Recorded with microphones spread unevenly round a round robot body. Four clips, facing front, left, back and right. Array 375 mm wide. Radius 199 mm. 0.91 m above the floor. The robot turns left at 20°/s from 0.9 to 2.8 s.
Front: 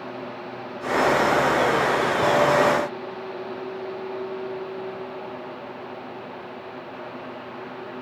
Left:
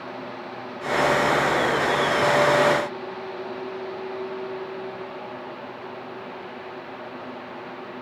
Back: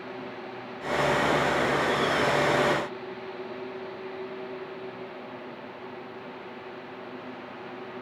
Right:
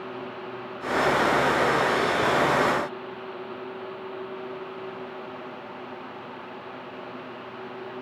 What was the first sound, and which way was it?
Only background noise.